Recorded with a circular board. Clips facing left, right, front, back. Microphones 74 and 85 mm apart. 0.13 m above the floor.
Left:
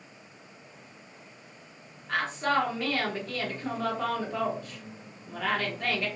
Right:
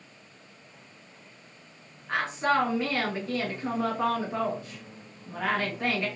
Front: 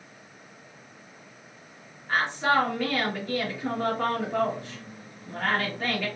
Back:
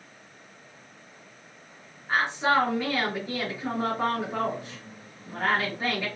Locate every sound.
2.1 s a woman speaking: 130° right, 1.1 m